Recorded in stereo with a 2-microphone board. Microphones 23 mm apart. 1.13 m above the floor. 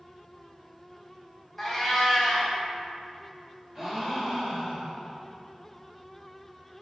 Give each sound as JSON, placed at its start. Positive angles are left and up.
{"t": 1.6, "sound": "a cat meowing", "side_deg": 5, "distance_m": 0.8}
{"t": 3.8, "sound": "a gasp", "side_deg": -15, "distance_m": 0.6}